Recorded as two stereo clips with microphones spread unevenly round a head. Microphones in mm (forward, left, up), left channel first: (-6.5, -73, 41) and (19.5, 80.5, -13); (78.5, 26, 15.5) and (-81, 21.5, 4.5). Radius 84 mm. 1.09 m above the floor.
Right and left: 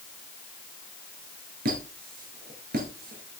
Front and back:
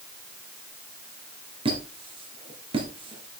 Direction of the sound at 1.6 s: 125° left.